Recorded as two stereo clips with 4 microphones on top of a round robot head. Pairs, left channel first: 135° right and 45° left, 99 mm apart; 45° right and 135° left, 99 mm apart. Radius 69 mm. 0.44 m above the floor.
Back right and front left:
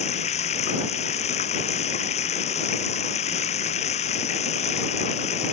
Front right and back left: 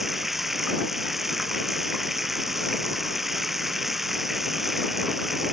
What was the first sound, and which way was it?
Running water, 135° right.